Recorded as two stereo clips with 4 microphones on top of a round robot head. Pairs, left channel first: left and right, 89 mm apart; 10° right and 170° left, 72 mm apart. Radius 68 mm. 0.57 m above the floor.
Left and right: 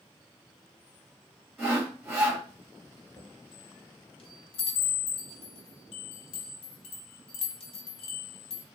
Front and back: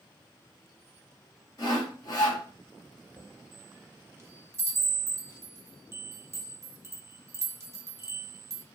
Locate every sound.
1.6 s sawing: straight ahead, 1.8 m
3.2 s a chime: 115° left, 0.8 m